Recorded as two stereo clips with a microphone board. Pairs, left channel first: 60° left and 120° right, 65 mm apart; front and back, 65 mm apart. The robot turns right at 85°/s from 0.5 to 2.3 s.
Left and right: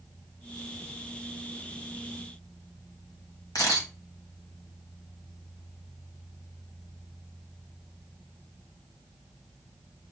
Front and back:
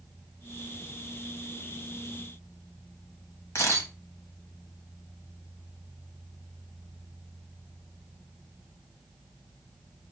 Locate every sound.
3.5 s a camera shutter: 45° left, 1.5 m